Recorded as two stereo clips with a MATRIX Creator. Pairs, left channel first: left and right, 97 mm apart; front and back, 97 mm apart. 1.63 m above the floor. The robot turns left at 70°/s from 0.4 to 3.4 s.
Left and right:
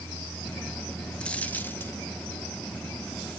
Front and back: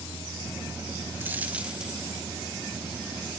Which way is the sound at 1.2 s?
150° left.